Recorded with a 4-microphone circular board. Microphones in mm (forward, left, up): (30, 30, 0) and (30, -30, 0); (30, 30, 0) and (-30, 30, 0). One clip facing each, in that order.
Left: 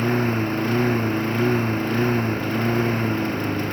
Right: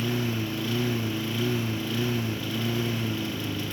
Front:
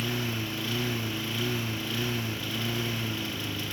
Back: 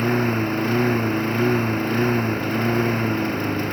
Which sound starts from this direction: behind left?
A lawn mower, at 0.0 s.